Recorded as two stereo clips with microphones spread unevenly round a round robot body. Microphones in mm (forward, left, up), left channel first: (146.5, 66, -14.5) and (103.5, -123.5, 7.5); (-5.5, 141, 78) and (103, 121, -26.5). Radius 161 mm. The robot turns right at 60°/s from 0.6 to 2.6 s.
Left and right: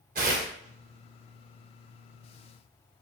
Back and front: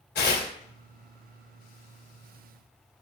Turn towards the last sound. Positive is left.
turn(degrees=-30)